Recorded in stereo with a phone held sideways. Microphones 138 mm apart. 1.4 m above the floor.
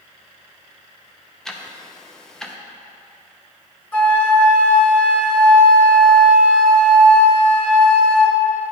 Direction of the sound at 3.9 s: 15° left (ahead or behind).